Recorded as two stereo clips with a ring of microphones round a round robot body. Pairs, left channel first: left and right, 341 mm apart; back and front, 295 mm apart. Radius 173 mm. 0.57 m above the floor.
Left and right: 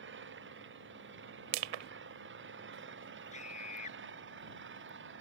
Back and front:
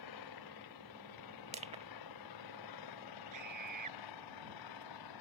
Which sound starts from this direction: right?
Crushing, at 1.5 s.